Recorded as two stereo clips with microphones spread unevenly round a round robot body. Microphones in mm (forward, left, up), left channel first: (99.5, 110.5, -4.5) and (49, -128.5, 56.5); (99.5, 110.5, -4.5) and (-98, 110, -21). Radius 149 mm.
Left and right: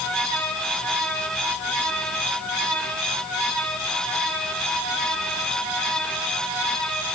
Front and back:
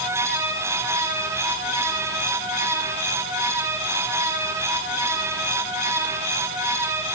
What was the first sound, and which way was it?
Only background noise.